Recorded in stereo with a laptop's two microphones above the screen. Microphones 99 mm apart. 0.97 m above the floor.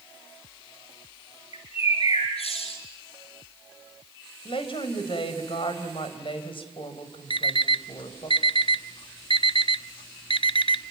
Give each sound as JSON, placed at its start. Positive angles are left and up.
{"t": 1.5, "sound": "a bird", "side_deg": 75, "distance_m": 7.0}
{"t": 4.5, "sound": "a woman speaking", "side_deg": 60, "distance_m": 4.0}
{"t": 7.3, "sound": "an alarm clock", "side_deg": 60, "distance_m": 0.6}